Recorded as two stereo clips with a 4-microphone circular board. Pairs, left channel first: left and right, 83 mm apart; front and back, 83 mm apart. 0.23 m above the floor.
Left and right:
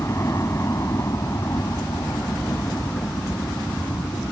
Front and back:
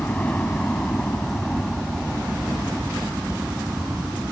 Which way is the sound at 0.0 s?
65° left.